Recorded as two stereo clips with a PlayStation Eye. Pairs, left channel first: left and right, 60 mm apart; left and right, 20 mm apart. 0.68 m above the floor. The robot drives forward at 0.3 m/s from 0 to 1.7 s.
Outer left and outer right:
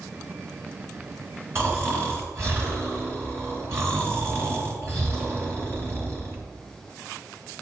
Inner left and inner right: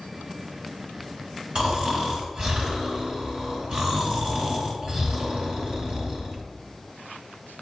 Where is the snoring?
45° right (ahead or behind), 3 m.